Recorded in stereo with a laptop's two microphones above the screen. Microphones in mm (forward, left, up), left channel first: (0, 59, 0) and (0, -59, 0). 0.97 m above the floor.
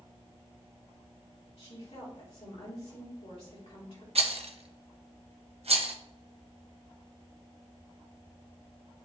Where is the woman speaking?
60° left (ahead or behind), 2.5 m.